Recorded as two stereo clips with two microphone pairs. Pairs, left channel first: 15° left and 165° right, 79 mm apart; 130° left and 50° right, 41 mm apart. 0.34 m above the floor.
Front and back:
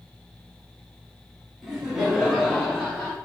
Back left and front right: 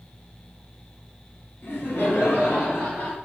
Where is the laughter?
105° left, 3.5 m; by 3.2 s 95° left, 4 m.